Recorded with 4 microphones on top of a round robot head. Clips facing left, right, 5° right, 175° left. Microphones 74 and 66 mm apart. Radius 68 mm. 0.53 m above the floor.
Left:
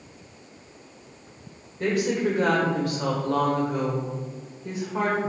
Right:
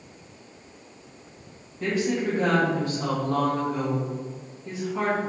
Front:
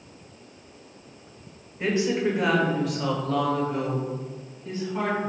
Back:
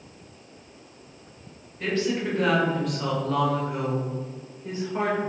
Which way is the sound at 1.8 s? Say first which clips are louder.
Left 1 dB, front 2 dB; 65° left.